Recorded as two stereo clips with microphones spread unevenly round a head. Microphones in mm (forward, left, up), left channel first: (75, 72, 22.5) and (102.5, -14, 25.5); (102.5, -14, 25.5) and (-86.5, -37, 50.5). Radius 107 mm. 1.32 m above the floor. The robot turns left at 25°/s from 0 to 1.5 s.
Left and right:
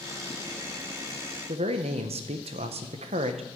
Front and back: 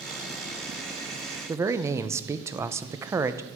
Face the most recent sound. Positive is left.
turn(degrees=-95)